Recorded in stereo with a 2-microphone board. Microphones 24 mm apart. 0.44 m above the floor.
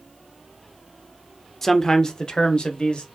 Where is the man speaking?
20° left (ahead or behind), 0.8 m; by 3.1 s 55° left (ahead or behind), 1.5 m.